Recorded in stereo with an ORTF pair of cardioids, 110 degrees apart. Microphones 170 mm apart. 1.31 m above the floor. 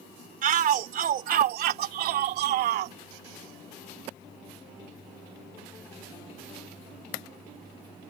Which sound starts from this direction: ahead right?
A shout, at 0.4 s.